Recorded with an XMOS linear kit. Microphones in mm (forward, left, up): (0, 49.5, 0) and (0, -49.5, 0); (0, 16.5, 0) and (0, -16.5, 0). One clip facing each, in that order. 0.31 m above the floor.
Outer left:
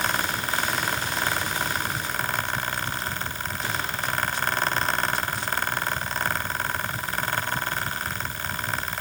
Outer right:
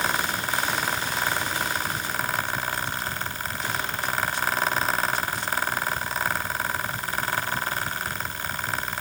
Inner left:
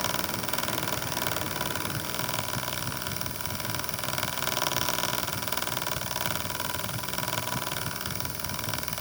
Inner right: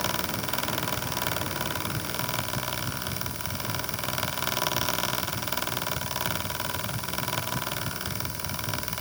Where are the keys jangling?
No keys jangling in this recording.